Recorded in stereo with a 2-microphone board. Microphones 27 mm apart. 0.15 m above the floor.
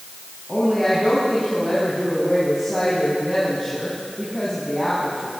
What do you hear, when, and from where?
0.5 s a woman speaking: 5° left (ahead or behind), 8 m